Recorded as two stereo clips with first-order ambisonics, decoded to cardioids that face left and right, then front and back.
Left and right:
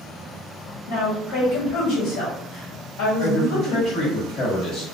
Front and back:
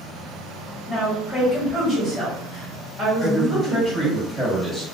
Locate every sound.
0.9 s a woman speaking: 80° left, 1.5 m
3.2 s a man speaking: 60° left, 1.4 m